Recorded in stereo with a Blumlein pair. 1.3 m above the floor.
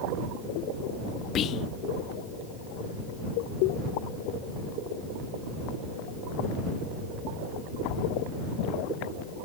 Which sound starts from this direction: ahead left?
Whispering, at 1.4 s.